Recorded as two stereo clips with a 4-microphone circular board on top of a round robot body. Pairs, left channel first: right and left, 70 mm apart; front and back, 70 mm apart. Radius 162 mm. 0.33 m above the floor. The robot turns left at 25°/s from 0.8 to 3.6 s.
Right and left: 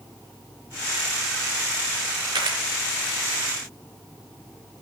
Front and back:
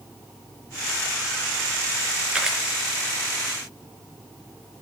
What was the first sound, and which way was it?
A camera shutter, 100° left.